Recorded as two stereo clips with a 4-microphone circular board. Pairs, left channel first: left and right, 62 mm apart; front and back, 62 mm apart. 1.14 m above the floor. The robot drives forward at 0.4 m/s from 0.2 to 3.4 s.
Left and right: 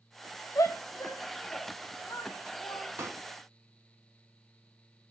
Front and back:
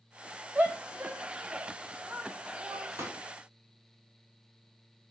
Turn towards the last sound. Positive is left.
turn(degrees=-135)